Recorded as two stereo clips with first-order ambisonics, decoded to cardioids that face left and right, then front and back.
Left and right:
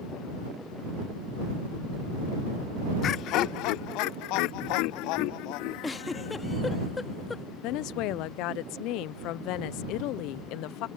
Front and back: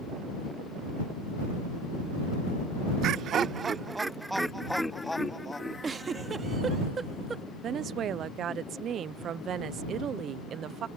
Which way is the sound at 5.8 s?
145° left.